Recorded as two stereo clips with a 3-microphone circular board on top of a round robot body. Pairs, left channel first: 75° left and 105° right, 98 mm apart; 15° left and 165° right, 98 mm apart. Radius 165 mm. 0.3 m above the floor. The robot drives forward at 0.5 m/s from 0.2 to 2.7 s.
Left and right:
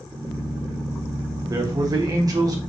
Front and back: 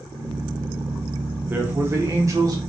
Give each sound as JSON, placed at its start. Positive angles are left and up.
{"t": 1.5, "sound": "a man speaking", "azimuth_deg": -110, "distance_m": 1.6}